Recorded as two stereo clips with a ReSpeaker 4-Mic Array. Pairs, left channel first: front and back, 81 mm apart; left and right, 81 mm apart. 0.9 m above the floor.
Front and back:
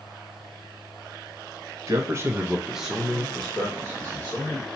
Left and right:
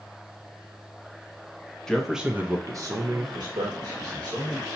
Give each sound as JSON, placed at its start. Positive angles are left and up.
{"t": 1.9, "sound": "a man speaking", "azimuth_deg": 170, "distance_m": 0.6}